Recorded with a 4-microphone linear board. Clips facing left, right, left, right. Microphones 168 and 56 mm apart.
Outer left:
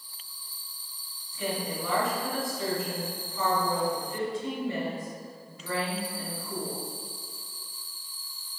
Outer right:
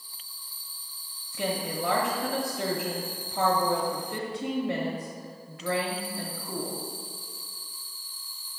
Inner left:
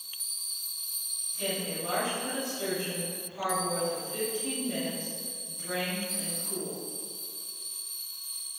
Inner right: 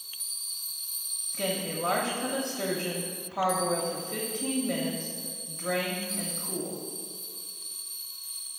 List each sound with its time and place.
1.3 s a woman speaking: 70° right (ahead or behind), 0.9 m